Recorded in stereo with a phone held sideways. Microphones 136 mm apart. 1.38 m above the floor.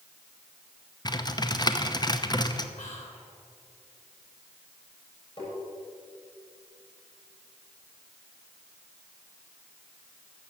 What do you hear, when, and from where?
1.1 s typing on a keyboard: 30° left (ahead or behind), 0.8 m
2.8 s whispering: 55° left (ahead or behind), 4.5 m
5.4 s tapping: 35° left (ahead or behind), 6 m